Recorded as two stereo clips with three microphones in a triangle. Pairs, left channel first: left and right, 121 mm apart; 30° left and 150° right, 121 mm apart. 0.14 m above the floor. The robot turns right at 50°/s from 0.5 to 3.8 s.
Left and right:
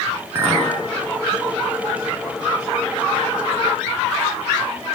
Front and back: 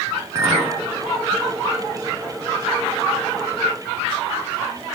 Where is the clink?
135° right, 0.7 m; by 0.7 s 125° right, 0.7 m.